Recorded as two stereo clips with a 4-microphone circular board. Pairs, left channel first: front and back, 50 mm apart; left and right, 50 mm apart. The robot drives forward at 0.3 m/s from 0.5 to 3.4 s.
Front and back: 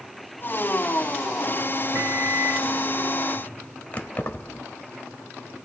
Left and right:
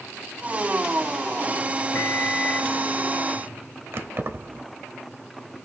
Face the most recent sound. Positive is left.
turn(degrees=-60)